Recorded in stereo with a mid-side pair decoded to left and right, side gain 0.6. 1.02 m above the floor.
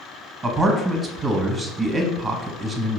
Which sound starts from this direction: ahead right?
A man speaking, at 0.4 s.